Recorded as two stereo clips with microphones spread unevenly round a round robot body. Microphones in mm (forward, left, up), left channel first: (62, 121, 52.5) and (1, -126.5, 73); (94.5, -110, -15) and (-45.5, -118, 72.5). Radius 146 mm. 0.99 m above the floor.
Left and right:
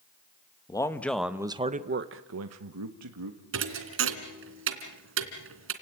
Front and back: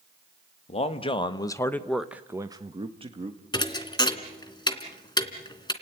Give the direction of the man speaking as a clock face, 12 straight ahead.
12 o'clock.